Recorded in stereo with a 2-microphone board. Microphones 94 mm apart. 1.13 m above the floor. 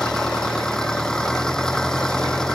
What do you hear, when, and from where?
0.0 s an engine running: 5° left (ahead or behind)